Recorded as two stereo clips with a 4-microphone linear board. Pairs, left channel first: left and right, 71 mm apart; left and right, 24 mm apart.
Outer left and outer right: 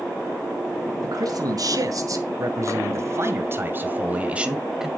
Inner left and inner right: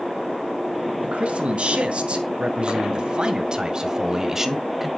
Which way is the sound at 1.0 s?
65° right (ahead or behind).